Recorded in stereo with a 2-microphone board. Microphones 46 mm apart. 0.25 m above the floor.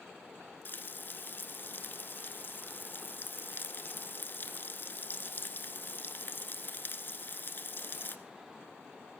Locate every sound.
0.7 s frying: 45° left (ahead or behind), 0.7 m